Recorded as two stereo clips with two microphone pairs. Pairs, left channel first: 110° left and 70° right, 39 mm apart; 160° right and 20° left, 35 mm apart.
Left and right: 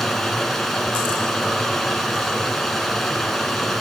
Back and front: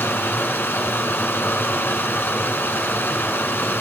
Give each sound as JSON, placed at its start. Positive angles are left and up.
{"t": 0.0, "sound": "running water", "azimuth_deg": -165, "distance_m": 2.0}